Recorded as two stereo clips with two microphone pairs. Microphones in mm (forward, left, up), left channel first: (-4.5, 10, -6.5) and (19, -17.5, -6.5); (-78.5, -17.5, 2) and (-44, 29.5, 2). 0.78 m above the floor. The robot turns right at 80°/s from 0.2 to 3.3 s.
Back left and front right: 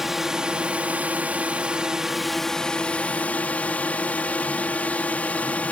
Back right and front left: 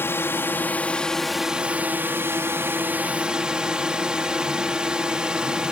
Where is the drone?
125° right; by 5.7 s 125° left.